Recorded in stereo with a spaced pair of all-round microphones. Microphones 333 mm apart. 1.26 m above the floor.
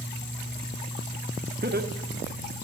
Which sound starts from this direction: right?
Laughter, at 1.6 s.